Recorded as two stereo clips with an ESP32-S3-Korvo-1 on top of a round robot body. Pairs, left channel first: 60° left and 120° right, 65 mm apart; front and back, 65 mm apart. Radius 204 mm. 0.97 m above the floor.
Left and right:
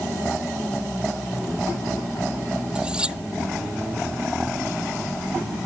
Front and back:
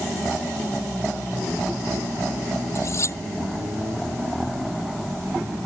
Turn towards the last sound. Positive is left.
turn(degrees=-45)